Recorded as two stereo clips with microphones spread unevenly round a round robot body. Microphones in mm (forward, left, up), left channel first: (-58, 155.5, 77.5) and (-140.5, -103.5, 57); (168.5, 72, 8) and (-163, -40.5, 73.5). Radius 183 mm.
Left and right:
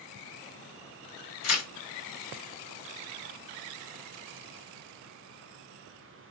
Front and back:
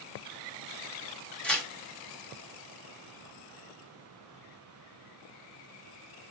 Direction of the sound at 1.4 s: 100° left.